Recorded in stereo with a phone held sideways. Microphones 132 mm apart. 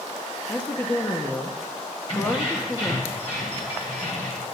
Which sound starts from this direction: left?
Keys jangling, at 2.1 s.